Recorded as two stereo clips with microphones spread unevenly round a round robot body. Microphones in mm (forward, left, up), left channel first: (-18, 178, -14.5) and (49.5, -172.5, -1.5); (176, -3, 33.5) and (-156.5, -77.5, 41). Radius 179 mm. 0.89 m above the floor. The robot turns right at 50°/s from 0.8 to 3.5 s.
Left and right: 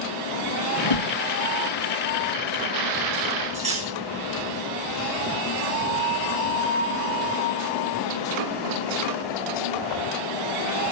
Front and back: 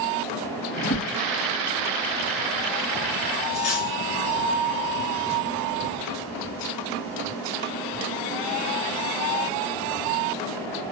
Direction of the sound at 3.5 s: 10° right.